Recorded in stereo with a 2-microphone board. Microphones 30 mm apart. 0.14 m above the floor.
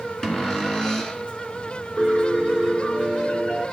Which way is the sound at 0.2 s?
25° left (ahead or behind).